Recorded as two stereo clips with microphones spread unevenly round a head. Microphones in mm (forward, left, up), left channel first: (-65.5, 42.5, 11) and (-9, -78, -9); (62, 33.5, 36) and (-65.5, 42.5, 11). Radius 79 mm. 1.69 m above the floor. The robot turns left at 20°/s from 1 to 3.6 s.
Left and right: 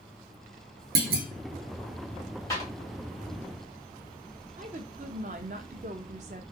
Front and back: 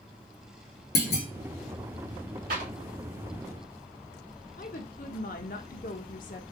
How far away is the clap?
About 2 m.